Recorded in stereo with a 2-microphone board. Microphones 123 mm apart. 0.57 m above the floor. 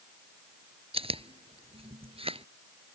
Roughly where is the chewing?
Right.